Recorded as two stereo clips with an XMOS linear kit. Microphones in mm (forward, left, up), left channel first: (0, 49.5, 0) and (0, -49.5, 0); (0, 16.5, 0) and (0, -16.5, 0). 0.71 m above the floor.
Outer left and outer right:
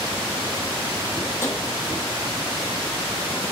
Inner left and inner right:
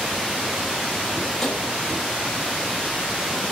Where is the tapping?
20° left (ahead or behind), 0.7 m.